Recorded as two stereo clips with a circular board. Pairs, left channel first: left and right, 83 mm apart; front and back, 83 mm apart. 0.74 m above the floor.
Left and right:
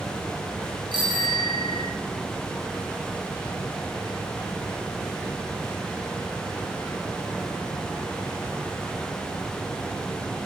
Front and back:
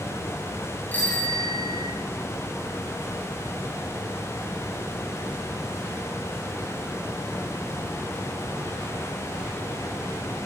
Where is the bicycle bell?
70° right, 9.5 m.